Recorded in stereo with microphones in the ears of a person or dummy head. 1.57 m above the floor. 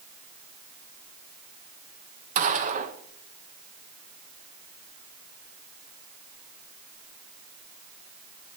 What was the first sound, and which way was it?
A gunshot, 40° right (ahead or behind).